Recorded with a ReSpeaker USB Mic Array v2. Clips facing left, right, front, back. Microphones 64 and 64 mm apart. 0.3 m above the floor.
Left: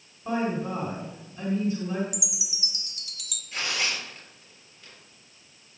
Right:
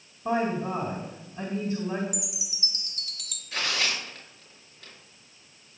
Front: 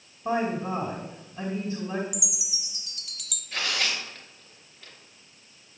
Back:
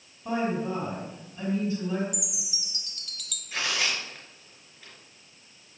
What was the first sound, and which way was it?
A woman speaking, 55° right.